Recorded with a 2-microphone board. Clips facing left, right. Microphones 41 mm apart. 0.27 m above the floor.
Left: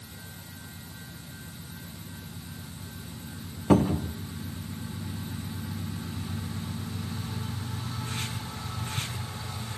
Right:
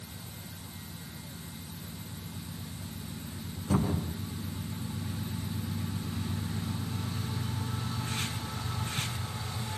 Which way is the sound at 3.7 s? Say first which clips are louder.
Left 8 dB; 80° left.